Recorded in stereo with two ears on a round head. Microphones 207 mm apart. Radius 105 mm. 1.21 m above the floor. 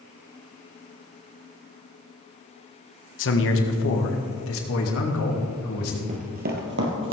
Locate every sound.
3.2 s a man speaking: 55° left (ahead or behind), 1.3 m; by 6.0 s 70° left (ahead or behind), 3 m
6.1 s running footsteps: 30° right (ahead or behind), 1.7 m; by 7.1 s 55° right (ahead or behind), 2.5 m